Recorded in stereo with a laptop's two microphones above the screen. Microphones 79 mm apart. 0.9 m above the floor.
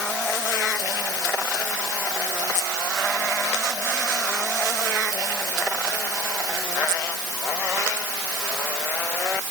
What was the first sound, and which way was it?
Only background noise.